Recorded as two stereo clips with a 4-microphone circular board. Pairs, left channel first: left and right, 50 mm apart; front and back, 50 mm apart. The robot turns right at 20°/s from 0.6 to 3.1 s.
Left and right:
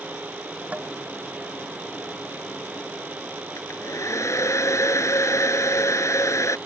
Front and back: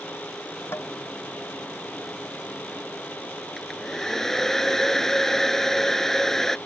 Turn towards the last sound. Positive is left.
turn(degrees=80)